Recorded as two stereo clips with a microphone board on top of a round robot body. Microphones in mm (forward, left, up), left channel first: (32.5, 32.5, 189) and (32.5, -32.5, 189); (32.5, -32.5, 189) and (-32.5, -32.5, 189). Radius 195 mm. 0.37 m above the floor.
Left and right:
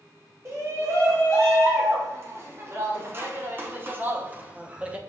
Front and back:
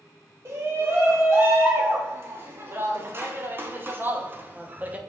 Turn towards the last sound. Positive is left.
turn(degrees=-145)